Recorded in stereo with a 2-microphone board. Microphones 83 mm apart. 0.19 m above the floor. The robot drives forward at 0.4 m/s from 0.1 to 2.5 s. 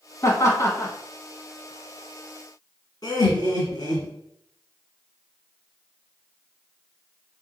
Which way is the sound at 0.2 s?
35° left (ahead or behind).